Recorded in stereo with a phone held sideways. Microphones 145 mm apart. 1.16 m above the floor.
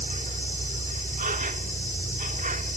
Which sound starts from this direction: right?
An insect, at 0.0 s.